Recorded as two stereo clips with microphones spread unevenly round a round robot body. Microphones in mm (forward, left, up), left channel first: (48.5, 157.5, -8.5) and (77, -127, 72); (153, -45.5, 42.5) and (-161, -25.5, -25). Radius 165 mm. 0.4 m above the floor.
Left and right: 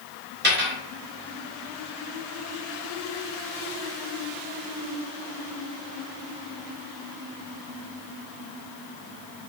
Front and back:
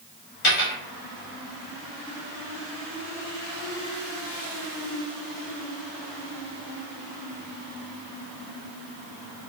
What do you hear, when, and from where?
0.4 s a dropped coin: 25° right, 1.1 m